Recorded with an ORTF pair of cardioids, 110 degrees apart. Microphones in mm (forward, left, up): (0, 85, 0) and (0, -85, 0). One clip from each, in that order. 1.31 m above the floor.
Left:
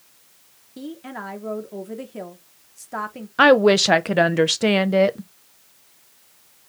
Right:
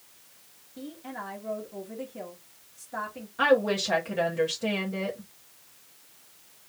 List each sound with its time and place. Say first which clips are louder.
0.8 s a woman speaking: left 5 dB; 50° left, 1.5 m
3.4 s a woman speaking: left 9 dB; 65° left, 0.7 m